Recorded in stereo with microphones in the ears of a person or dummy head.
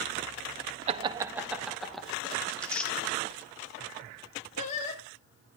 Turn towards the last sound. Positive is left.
turn(degrees=40)  # may be behind; listen again after turning